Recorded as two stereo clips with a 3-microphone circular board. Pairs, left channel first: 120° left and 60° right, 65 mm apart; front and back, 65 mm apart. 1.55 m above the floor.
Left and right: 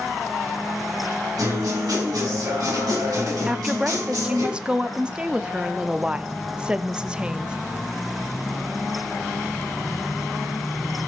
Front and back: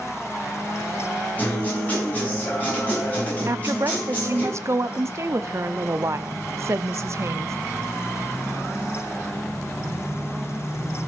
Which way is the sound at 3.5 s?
135° right.